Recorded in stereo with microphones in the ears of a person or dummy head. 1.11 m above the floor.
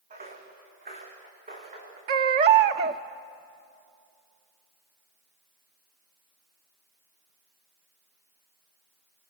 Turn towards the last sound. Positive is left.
turn(degrees=-35)  # may be behind; listen again after turning